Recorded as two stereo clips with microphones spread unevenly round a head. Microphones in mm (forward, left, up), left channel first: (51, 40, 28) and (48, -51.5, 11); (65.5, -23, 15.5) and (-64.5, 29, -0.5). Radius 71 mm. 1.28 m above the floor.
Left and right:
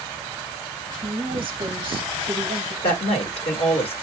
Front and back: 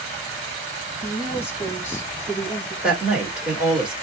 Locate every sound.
1.0 s a woman speaking: 90° right, 1.0 m
2.8 s a woman speaking: 75° left, 1.9 m